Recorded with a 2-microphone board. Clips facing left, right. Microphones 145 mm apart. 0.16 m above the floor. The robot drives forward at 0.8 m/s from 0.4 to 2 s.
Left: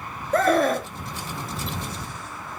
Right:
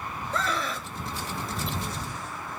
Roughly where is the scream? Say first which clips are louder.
Left 12 dB; left.